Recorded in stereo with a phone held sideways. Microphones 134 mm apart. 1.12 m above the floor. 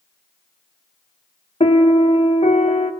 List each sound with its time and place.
1.6 s a piano: 50° left (ahead or behind), 1.1 m